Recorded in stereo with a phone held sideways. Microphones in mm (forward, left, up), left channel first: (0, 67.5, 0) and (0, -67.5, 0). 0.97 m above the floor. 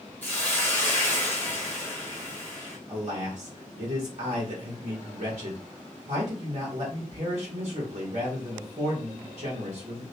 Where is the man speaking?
55° right (ahead or behind), 0.8 m.